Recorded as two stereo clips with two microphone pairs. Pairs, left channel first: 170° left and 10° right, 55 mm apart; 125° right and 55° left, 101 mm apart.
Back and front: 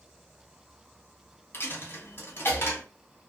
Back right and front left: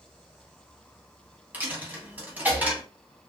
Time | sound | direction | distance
1.5 | a dropped coin | 130° left | 0.9 m